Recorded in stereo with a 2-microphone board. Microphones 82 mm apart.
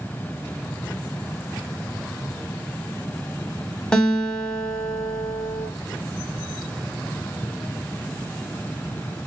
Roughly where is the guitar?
Centre.